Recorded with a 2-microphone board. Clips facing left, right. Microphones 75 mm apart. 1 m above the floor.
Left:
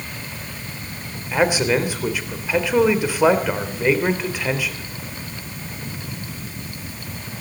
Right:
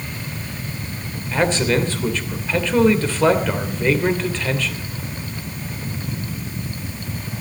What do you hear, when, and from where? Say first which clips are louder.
1.3 s a man speaking: even; 10° left (ahead or behind), 3 m